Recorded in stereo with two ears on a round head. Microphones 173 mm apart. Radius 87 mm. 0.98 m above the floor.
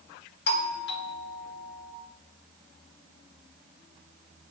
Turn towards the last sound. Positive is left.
turn(degrees=55)  # may be behind; listen again after turning